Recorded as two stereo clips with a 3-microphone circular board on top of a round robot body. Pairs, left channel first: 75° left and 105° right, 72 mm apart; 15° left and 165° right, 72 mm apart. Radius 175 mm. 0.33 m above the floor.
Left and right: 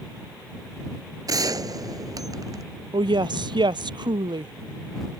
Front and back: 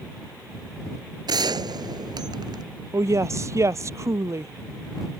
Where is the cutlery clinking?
I don't hear cutlery clinking.